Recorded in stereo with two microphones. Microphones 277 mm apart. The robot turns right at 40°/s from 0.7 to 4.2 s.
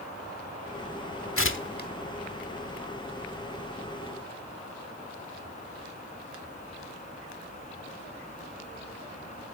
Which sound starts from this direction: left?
Tearing paper, at 1.4 s.